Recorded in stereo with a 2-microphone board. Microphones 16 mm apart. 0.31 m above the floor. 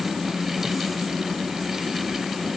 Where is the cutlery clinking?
No cutlery clinking in this recording.